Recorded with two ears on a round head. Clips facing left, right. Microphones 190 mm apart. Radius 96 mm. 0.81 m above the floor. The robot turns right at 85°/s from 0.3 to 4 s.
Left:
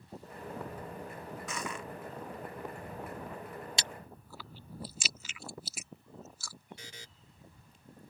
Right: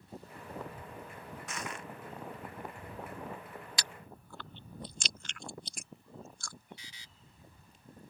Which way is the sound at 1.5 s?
70° left.